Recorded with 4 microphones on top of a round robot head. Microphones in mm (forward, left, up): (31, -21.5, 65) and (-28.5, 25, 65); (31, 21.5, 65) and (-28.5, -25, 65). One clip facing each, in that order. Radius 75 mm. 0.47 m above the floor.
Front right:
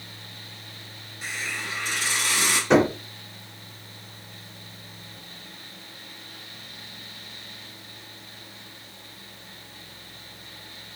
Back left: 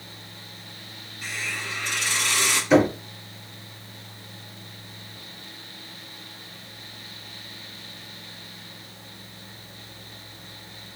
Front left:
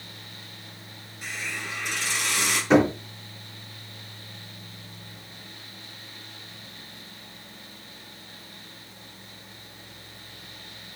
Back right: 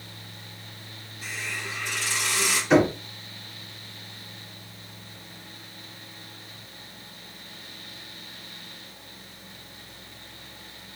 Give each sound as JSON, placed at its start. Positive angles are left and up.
{"t": 1.2, "sound": "a hiss", "azimuth_deg": 20, "distance_m": 3.0}
{"t": 2.7, "sound": "knocking", "azimuth_deg": -5, "distance_m": 4.0}